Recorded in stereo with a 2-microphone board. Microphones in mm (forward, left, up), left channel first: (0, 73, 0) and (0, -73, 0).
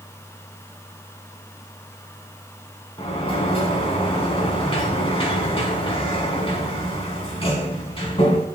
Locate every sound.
3.0 s a sliding door: 40° left (ahead or behind), 3 m